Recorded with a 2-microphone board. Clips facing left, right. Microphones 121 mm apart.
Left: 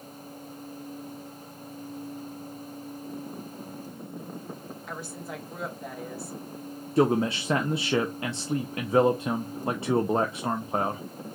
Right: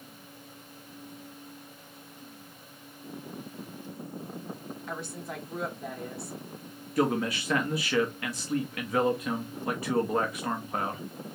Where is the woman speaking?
Centre (ahead or behind), 1.3 m.